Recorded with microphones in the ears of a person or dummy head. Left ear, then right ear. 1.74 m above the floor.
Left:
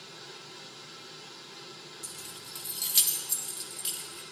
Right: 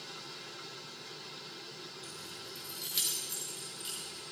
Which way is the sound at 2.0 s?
15° left (ahead or behind).